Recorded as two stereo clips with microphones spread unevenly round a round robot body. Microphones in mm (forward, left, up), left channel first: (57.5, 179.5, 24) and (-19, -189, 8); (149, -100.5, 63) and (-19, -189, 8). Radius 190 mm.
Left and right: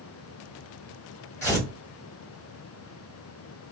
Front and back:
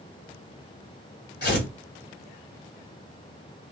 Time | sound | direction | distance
1.4 | tearing paper | 5° right | 1.4 m